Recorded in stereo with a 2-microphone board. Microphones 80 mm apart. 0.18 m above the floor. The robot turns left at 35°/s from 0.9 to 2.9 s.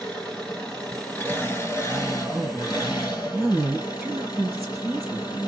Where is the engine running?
165° left, 2.5 m; by 5.5 s 95° left, 2.5 m.